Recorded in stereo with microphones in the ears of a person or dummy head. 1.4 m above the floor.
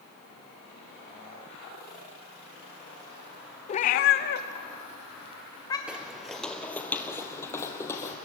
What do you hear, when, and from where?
3.7 s a cat meowing: 40° left (ahead or behind), 1.1 m; by 5.8 s 20° left (ahead or behind), 3 m
5.9 s footsteps: 5° right (ahead or behind), 1.8 m; by 8.2 s 20° left (ahead or behind), 3.5 m